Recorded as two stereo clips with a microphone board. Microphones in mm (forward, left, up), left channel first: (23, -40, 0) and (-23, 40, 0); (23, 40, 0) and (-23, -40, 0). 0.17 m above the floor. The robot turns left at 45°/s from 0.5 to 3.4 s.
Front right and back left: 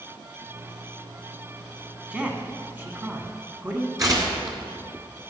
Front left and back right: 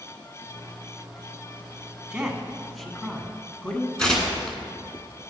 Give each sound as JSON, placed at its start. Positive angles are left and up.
{"t": 2.1, "sound": "a man speaking", "azimuth_deg": 180, "distance_m": 1.1}
{"t": 4.0, "sound": "tearing paper", "azimuth_deg": 135, "distance_m": 1.7}